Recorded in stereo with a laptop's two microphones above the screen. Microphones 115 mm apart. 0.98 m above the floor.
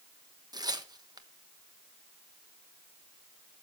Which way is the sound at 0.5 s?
35° right (ahead or behind).